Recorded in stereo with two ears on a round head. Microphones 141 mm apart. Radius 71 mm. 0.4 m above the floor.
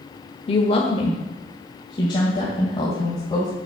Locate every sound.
0.5 s a woman speaking: 35° left (ahead or behind), 1.1 m; by 3.5 s 25° left (ahead or behind), 2.5 m